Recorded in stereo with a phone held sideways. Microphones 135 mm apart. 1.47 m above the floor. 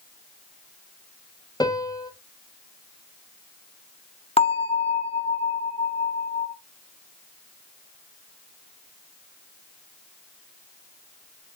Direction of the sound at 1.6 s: 30° left (ahead or behind).